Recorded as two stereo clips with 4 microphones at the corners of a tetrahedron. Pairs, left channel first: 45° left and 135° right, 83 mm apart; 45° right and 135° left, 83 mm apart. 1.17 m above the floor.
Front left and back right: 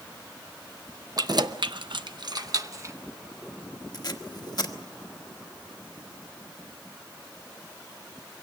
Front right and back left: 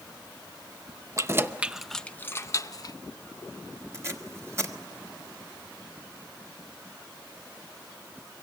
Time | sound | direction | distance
1.2 | keys jangling | 170° right | 0.6 m
3.9 | tape being pulled | 80° left | 1.3 m